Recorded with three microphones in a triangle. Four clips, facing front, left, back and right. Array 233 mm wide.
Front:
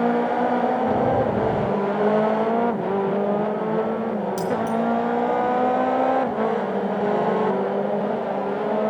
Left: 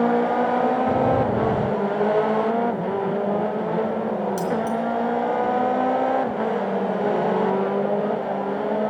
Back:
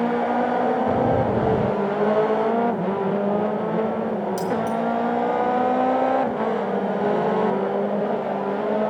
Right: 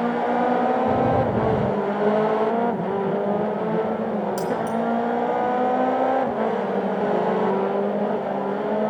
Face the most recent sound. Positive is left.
turn(degrees=5)